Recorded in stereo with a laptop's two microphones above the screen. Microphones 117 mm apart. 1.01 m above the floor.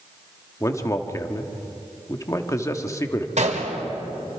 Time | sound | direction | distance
0.6 | a man speaking | 25° left (ahead or behind) | 1.5 m
3.4 | a gunshot | 85° right | 2 m